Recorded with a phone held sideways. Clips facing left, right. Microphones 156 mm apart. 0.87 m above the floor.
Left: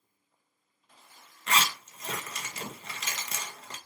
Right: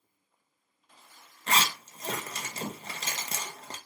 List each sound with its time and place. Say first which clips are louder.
1.5 s a zipper: even; 30° right (ahead or behind), 0.6 m